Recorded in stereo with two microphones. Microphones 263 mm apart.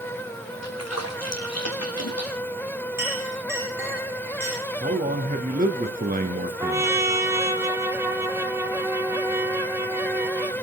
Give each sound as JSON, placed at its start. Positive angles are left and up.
{"t": 0.6, "sound": "a splash", "side_deg": 70, "distance_m": 1.7}
{"t": 3.0, "sound": "a clink", "side_deg": -10, "distance_m": 9.5}
{"t": 4.8, "sound": "a man speaking", "side_deg": -35, "distance_m": 1.4}
{"t": 6.6, "sound": "a trumpet", "side_deg": -10, "distance_m": 1.1}